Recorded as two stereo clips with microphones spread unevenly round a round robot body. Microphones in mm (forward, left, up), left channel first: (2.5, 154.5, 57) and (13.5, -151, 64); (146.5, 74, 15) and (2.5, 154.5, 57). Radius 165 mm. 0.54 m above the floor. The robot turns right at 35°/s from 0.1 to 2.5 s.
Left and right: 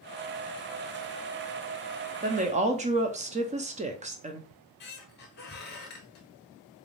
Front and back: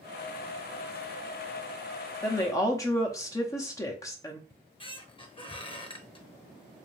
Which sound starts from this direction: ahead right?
A woman speaking, at 2.2 s.